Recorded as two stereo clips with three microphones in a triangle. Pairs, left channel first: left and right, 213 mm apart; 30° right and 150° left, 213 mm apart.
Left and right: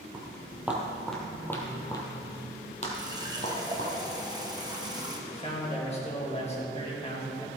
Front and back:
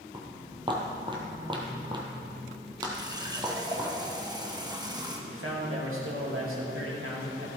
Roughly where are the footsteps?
Behind right.